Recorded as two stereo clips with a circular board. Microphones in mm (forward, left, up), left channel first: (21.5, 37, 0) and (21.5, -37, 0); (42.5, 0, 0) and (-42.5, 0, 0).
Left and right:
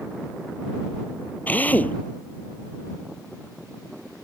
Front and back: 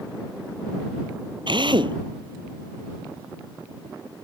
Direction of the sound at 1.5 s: 160° left.